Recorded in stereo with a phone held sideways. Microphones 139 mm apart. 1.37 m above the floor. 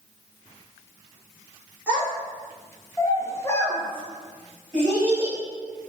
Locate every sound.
1.9 s a child speaking: 10° left (ahead or behind), 1.0 m; by 5.4 s 5° left (ahead or behind), 1.1 m